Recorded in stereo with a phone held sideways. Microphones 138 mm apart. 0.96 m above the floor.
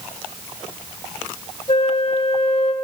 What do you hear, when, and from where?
1.7 s a flute: 45° left (ahead or behind), 0.6 m